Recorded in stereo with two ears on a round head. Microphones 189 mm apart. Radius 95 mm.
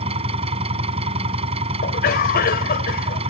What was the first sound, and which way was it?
An engine running, 30° right (ahead or behind).